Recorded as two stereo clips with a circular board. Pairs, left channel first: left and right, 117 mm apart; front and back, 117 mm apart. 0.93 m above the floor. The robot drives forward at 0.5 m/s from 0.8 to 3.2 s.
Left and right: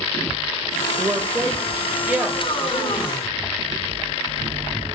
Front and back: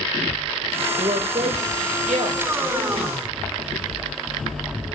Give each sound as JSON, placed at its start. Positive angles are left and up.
{"t": 1.0, "sound": "a woman speaking", "azimuth_deg": -160, "distance_m": 0.8}